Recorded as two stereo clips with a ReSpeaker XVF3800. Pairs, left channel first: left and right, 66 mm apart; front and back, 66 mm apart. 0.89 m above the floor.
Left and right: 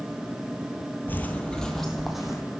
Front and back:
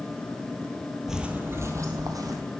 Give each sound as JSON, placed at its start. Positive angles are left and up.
{"t": 1.1, "sound": "footsteps", "azimuth_deg": 100, "distance_m": 0.9}